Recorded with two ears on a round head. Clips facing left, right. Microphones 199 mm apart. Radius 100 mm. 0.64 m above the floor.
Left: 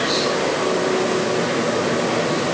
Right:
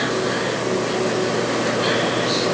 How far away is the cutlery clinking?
I don't hear cutlery clinking.